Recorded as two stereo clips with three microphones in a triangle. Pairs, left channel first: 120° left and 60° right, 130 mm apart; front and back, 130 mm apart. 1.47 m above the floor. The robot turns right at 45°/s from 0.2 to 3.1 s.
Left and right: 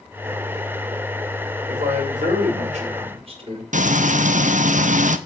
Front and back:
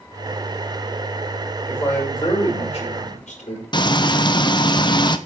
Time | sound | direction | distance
1.7 | a man speaking | 90° right | 6 m
3.7 | frying | 50° right | 0.8 m